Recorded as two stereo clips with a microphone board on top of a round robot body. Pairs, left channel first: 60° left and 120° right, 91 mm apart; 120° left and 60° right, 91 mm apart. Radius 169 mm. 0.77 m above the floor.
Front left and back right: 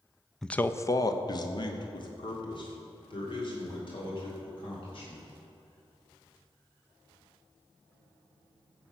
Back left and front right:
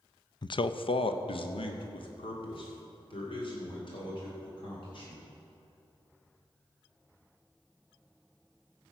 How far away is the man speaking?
About 0.6 m.